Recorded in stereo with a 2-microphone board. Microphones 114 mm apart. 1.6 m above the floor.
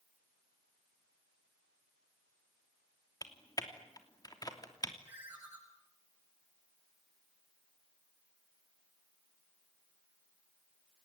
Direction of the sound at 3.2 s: 35° left (ahead or behind).